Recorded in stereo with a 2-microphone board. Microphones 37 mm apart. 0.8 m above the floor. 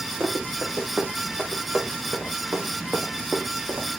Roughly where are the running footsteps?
Right.